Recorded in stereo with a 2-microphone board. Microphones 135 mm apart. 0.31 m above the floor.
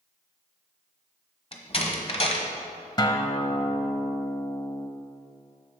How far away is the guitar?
About 0.8 m.